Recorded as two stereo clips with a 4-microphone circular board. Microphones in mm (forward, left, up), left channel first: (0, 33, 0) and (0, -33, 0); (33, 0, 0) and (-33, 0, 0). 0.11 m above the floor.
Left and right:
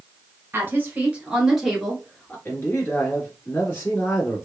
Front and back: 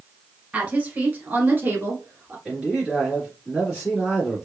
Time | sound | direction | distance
0.5 | a woman speaking | 125° right | 1.4 m
2.5 | a man speaking | 120° left | 1.9 m